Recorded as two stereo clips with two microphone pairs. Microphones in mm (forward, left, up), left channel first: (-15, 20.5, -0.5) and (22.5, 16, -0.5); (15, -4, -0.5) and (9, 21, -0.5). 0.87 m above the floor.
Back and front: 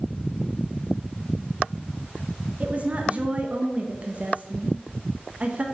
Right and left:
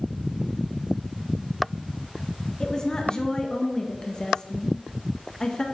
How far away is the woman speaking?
About 0.8 m.